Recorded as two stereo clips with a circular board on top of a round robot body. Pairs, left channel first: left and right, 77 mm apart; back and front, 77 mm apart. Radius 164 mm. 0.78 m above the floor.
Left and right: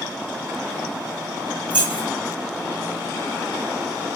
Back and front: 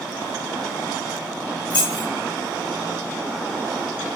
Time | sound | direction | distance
1.7 | keys jangling | 165° right | 1.2 m